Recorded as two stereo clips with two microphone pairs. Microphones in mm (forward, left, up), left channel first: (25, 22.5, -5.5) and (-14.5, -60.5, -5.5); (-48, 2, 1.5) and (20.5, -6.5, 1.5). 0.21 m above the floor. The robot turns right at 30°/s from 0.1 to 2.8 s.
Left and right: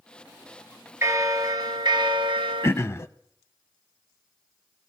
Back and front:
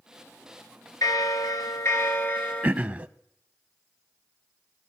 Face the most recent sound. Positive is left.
turn(degrees=40)